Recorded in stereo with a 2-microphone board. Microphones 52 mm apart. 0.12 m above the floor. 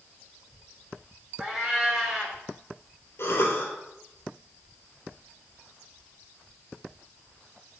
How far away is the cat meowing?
About 3 m.